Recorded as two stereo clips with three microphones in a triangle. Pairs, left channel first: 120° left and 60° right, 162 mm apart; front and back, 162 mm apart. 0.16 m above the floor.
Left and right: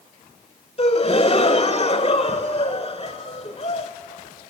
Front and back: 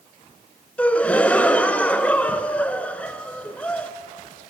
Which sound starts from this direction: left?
A gasp, at 0.8 s.